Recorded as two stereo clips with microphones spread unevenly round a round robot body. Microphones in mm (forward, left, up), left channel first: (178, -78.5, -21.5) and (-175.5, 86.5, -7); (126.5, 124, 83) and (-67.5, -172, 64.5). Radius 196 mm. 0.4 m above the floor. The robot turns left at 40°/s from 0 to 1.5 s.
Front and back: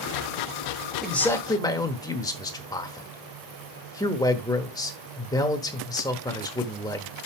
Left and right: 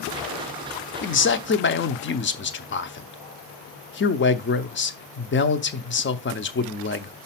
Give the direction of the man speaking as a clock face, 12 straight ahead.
10 o'clock.